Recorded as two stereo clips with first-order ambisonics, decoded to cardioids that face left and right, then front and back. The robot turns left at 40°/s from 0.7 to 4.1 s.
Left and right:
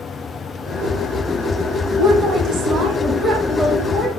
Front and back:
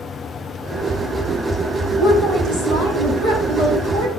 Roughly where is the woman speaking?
Right.